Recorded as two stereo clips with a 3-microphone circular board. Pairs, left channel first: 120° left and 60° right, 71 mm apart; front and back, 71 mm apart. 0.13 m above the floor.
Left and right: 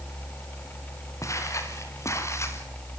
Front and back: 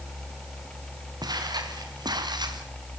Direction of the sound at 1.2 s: 160° left.